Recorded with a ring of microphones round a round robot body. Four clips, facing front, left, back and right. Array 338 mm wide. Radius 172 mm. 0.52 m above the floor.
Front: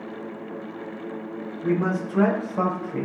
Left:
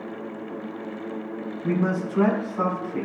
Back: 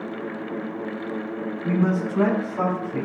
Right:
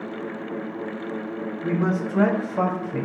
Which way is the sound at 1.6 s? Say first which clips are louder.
Even, back 1 dB; 50° right.